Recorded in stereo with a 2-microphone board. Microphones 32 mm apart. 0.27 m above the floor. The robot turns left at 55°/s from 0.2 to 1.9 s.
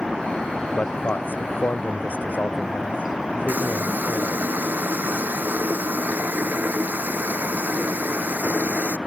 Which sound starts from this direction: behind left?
A man speaking, at 0.8 s.